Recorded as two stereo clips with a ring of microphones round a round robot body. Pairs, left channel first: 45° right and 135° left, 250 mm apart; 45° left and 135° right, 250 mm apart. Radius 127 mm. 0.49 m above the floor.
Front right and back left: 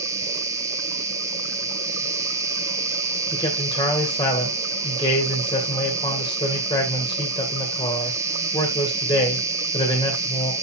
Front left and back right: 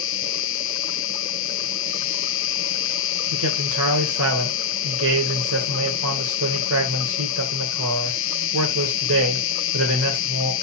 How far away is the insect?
About 1.1 m.